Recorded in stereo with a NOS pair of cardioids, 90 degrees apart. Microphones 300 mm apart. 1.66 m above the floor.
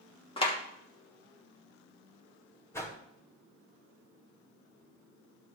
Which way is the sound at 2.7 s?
10° left.